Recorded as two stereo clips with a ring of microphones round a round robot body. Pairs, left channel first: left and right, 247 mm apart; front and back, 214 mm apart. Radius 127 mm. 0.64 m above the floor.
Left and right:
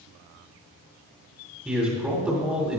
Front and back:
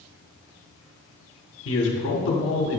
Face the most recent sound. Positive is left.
turn(degrees=-5)